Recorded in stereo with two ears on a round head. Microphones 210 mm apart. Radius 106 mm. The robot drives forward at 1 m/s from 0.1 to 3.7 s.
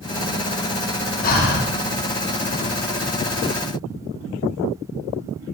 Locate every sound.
1.2 s breathing: 35° left (ahead or behind), 1.0 m; by 1.7 s 40° left (ahead or behind), 0.9 m